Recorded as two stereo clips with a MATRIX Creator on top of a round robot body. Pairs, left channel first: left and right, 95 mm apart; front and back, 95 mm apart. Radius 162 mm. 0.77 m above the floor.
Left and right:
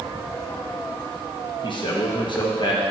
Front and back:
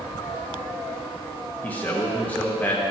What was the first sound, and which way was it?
A man speaking, 70° left.